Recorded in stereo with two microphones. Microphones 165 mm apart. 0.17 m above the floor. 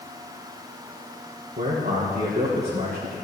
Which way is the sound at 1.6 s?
75° right (ahead or behind).